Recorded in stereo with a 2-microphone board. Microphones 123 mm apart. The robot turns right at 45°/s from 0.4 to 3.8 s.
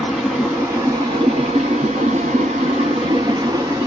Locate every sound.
0.0 s running water: 170° right, 1.0 m; by 3.9 s 15° right, 1.0 m